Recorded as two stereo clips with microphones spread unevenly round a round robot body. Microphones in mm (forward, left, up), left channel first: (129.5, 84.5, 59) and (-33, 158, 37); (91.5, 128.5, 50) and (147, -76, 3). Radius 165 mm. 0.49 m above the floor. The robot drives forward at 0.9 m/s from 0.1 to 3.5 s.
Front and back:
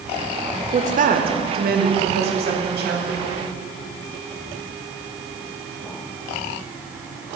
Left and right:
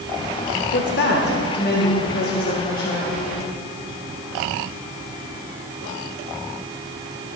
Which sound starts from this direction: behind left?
A woman speaking, at 0.7 s.